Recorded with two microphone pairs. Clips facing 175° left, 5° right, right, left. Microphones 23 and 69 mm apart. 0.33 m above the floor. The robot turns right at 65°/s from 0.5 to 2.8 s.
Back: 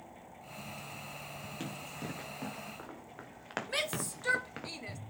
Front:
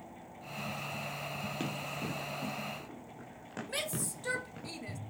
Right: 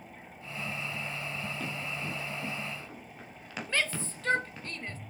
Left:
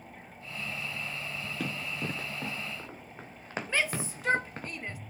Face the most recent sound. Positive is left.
turn(degrees=145)